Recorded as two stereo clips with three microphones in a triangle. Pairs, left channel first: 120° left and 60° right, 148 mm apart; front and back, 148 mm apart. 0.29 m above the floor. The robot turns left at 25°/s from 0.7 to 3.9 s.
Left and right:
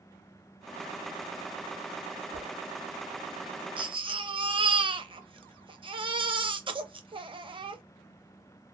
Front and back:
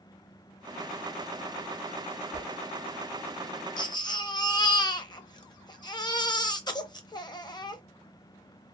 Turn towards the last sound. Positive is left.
turn(degrees=-40)